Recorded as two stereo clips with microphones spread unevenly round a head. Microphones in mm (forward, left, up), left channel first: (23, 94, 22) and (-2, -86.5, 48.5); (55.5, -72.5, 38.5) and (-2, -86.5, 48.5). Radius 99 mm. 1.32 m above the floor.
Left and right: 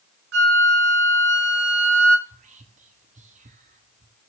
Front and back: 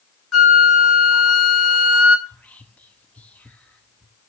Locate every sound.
0.3 s a flute: 70° right, 2.0 m
2.3 s whispering: 45° right, 0.9 m